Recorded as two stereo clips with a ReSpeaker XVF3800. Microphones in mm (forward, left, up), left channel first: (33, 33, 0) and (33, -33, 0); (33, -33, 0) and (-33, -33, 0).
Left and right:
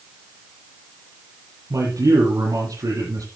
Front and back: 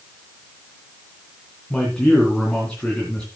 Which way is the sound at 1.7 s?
75° right.